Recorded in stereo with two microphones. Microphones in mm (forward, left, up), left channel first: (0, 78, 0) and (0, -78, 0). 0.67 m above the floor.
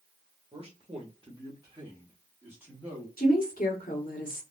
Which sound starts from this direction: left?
A woman speaking, at 3.2 s.